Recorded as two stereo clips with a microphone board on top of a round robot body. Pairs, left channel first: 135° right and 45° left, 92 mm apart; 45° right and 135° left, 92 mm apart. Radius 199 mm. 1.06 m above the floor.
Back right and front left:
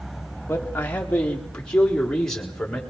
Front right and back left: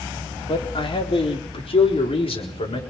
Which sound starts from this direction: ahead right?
A man speaking, at 0.5 s.